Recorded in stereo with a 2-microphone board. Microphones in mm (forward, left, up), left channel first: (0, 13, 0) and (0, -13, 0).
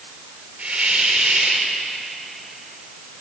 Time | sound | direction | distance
0.6 | a hiss | 60° right (ahead or behind) | 5.5 m